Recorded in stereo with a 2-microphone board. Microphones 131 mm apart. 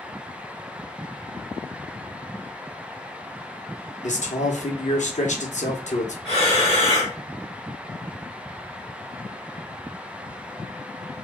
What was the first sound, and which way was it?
A man speaking, 65° left (ahead or behind).